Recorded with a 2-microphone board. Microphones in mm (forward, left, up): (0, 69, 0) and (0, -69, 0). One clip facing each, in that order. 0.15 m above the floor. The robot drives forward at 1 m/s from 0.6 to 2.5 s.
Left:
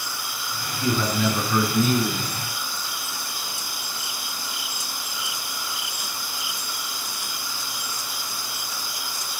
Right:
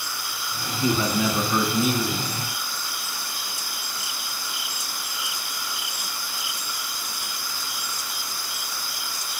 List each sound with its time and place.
0.8 s a man speaking: 10° right (ahead or behind), 1.4 m; by 2.3 s 5° right (ahead or behind), 2.5 m